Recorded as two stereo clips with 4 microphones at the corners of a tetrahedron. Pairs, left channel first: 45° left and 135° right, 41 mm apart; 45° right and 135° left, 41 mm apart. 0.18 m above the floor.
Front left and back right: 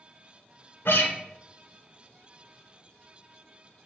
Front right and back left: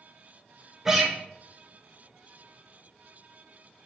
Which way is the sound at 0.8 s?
60° left.